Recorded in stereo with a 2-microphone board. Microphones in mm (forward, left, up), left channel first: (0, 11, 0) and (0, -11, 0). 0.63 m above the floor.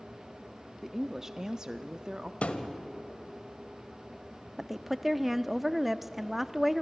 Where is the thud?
75° left (ahead or behind), 1.5 m.